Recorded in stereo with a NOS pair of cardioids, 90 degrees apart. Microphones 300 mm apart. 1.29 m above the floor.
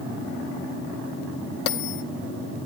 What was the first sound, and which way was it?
A bell, 55° left.